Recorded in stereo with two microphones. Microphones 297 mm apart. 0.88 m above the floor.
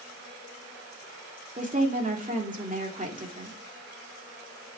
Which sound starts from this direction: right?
A woman speaking, at 1.6 s.